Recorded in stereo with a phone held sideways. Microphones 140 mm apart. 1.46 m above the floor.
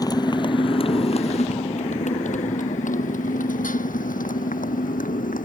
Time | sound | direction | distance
0.0 | a motorcycle | 30° left (ahead or behind) | ?